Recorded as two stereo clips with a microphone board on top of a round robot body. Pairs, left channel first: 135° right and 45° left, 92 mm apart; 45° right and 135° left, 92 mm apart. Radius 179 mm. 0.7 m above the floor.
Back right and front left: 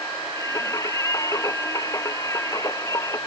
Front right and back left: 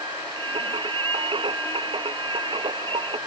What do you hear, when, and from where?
0.4 s singing: 170° left